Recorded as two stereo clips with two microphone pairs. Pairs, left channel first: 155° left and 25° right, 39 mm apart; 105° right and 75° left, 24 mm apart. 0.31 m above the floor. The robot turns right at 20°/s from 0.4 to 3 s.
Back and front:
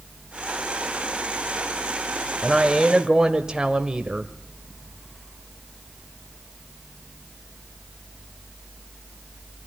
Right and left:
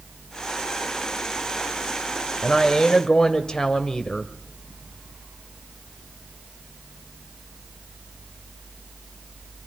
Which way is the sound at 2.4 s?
90° right.